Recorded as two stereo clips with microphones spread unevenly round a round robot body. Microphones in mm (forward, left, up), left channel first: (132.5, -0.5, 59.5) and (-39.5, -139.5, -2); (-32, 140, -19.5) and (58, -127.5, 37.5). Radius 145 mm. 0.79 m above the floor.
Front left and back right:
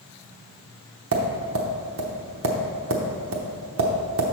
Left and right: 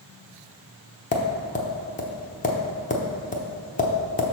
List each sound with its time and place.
1.1 s tapping: 175° left, 0.8 m